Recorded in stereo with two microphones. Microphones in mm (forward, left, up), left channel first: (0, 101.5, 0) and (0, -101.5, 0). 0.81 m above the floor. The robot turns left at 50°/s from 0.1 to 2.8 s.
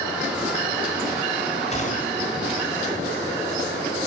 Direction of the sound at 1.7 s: 145° left.